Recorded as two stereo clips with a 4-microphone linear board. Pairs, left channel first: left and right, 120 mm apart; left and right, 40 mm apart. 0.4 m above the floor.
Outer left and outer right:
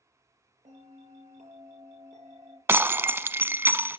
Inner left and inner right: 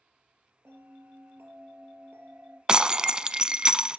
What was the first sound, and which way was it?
A bell, 75° right (ahead or behind).